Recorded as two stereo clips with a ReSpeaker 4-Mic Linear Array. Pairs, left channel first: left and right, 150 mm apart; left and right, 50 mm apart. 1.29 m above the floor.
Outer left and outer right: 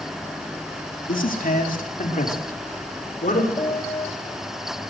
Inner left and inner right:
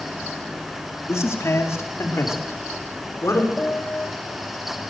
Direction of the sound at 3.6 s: 35° left (ahead or behind).